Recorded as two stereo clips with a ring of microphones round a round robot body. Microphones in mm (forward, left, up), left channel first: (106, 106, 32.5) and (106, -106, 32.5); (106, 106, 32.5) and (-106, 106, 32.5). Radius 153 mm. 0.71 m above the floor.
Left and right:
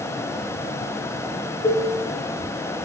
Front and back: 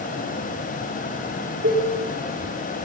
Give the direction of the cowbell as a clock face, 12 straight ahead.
6 o'clock.